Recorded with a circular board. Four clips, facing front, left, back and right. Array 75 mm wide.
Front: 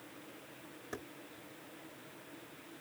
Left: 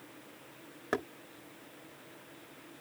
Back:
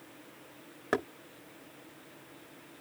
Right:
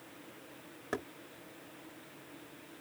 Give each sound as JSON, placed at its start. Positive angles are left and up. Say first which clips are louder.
{"t": 0.9, "sound": "knocking", "louder": "left 4 dB, back 15 dB", "azimuth_deg": 160}